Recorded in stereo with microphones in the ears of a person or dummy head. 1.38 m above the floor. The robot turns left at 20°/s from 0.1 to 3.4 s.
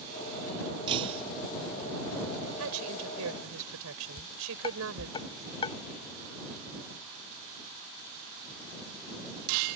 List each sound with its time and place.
0.9 s breaking glass: 25° right (ahead or behind); by 1.2 s 35° right (ahead or behind)
2.6 s a woman speaking: 85° right; by 5.2 s 80° right
4.2 s dishes clattering: 25° left (ahead or behind)